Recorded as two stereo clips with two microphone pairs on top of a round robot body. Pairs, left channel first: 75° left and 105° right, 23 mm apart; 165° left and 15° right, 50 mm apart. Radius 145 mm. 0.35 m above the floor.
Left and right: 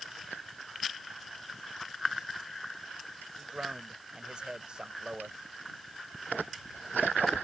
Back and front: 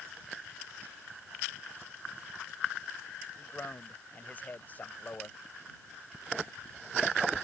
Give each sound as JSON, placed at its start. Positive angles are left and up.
{"t": 3.4, "sound": "a man speaking", "azimuth_deg": -150}